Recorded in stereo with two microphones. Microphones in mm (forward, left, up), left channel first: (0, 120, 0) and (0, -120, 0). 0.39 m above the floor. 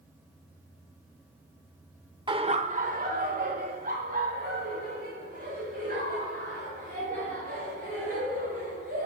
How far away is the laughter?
About 0.8 m.